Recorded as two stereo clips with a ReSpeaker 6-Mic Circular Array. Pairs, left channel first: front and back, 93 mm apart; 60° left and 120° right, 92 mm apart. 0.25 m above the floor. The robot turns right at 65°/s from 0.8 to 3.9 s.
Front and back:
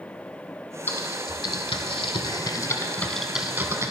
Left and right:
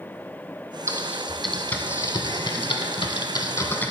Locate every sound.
0.9 s typing on a keyboard: 65° right, 0.6 m; by 3.9 s 130° left, 0.6 m